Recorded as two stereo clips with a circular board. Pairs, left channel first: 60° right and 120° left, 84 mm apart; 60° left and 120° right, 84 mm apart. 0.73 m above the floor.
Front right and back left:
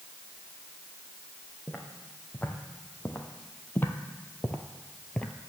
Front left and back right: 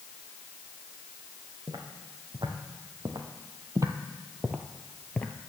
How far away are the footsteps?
About 2 m.